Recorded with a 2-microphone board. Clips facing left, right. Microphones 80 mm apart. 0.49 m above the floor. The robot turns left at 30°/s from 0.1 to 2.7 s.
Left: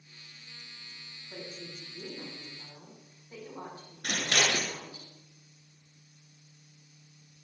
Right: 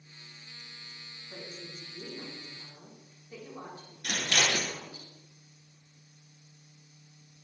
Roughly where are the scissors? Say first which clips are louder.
Left 1 dB; left.